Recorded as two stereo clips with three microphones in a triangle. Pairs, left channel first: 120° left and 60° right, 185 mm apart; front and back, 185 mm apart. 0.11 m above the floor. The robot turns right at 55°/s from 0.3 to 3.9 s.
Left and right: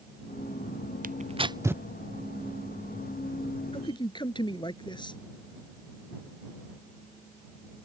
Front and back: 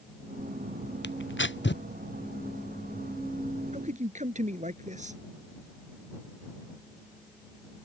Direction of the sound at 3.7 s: 160° left.